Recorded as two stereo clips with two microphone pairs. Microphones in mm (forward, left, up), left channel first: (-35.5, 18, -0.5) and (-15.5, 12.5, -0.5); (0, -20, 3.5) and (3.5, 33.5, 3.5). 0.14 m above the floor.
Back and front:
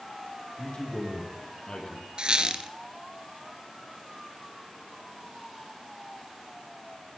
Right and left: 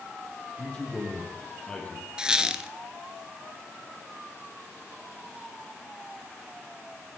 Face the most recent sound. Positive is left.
turn(degrees=15)